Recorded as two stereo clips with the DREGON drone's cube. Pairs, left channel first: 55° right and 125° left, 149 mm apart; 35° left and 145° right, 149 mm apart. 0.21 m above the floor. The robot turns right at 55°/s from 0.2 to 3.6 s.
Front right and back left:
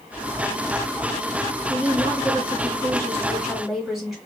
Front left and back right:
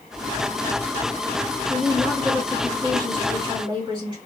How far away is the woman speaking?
About 1.5 m.